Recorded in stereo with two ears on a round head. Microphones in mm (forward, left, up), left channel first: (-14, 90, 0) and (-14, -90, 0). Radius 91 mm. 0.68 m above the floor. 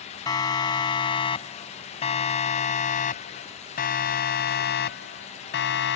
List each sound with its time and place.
0.3 s a siren: 20° left (ahead or behind); by 6.0 s 65° left (ahead or behind)